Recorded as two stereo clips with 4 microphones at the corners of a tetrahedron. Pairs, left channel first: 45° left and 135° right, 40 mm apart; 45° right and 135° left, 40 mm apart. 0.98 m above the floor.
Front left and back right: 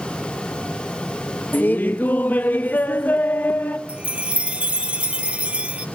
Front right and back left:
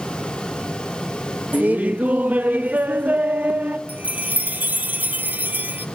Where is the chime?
170° left, 0.9 m.